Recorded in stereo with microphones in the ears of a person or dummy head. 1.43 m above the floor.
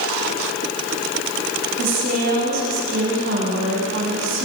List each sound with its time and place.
1.8 s a woman speaking: 65° right (ahead or behind), 8.5 m